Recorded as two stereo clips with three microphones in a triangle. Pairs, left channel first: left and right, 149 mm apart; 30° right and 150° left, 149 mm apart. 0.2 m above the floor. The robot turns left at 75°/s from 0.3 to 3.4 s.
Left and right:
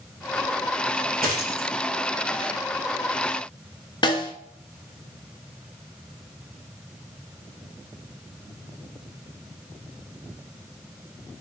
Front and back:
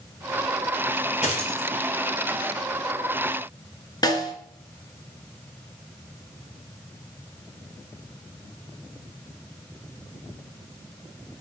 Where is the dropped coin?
75° right, 1.0 m; by 1.7 s 105° right, 1.0 m.